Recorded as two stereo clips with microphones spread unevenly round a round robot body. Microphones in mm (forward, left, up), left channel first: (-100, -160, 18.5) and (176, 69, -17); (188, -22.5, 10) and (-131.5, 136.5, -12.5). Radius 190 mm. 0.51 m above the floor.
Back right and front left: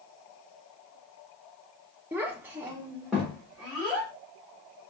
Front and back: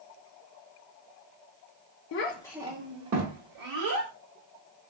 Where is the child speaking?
35° right, 0.6 m; by 4.1 s 130° left, 1.6 m.